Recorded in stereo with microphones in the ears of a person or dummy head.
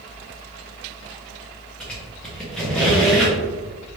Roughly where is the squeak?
Centre.